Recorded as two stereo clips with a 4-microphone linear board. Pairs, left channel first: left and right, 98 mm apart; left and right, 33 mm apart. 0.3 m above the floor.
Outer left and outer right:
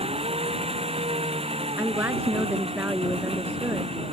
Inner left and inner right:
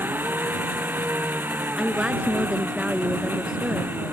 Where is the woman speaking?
20° right (ahead or behind).